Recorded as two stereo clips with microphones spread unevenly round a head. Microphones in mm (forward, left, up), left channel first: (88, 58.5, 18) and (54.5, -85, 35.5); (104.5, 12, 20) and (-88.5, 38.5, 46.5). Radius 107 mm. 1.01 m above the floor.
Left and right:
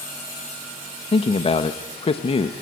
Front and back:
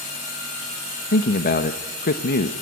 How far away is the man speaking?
About 1.0 m.